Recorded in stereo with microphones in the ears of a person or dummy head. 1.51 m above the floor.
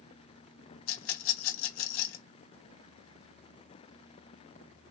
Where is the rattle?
85° left, 1.0 m.